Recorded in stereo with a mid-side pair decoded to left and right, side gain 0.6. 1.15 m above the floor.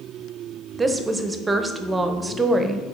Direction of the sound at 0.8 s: 20° right.